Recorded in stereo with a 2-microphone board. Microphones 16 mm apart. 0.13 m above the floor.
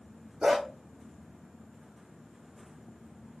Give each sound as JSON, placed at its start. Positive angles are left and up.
{"t": 0.4, "sound": "a dog barking", "side_deg": -60, "distance_m": 1.4}